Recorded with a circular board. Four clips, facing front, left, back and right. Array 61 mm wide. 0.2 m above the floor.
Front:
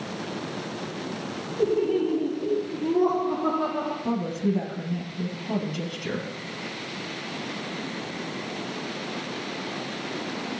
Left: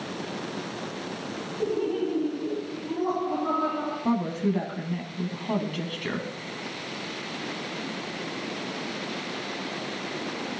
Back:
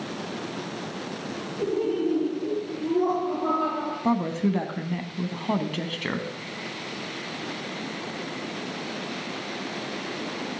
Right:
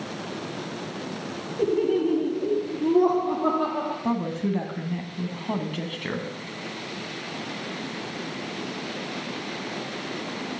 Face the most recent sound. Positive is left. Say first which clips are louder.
# left 3 dB, back 5 dB
turn(degrees=-175)